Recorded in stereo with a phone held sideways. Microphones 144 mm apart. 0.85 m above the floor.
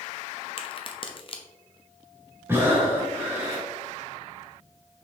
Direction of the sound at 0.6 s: 40° left (ahead or behind).